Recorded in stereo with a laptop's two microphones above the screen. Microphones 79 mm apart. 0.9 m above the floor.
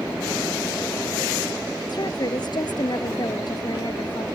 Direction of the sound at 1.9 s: 60° left (ahead or behind).